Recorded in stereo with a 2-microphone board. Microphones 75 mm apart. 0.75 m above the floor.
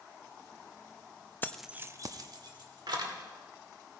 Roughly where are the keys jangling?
Left.